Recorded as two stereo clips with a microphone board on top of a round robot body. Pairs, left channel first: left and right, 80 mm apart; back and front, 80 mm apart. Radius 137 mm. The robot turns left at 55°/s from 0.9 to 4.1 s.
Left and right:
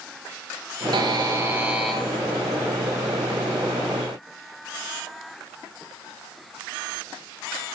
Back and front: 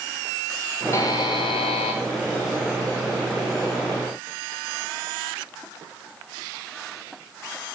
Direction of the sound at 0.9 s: 125° right.